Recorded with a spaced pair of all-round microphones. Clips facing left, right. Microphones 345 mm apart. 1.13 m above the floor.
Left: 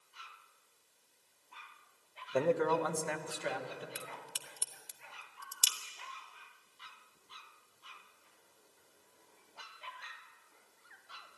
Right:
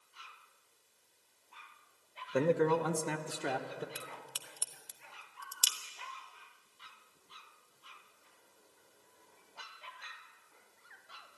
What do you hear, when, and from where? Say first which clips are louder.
2.3 s a man speaking: right 2 dB; 20° right (ahead or behind), 0.8 m; by 3.9 s 65° right (ahead or behind), 1.1 m
4.0 s a crack: even; 35° left (ahead or behind), 0.6 m